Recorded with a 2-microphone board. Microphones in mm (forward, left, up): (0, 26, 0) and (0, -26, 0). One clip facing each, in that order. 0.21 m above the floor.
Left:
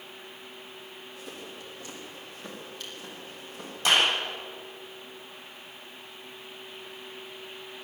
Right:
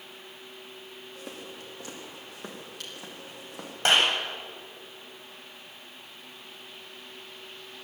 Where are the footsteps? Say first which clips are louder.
Right 1 dB; 60° right (ahead or behind), 7 m; by 3.8 s 80° right, 8 m.